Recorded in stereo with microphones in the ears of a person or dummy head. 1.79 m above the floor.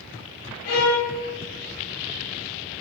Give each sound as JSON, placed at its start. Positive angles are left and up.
{"t": 0.7, "sound": "a violin", "side_deg": 45, "distance_m": 1.0}